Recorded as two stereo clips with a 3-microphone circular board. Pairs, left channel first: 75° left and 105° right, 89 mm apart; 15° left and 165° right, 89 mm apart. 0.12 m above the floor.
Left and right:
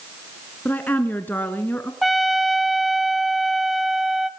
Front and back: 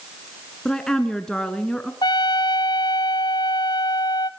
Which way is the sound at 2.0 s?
15° right.